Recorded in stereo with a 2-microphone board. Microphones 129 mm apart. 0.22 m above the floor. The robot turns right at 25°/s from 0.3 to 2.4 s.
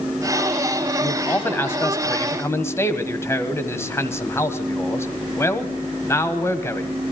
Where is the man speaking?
15° left (ahead or behind), 1.2 m; by 6.9 s 20° left (ahead or behind), 1.2 m.